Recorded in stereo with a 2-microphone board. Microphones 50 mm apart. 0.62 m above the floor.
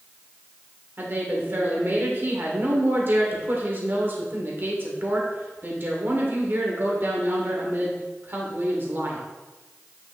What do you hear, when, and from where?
1.0 s a woman speaking: 45° right (ahead or behind), 2 m